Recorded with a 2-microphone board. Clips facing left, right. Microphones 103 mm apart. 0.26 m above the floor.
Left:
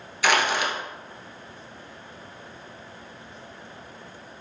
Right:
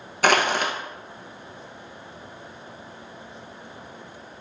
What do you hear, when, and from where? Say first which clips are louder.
0.2 s crushing: right 2 dB; 55° right (ahead or behind), 0.6 m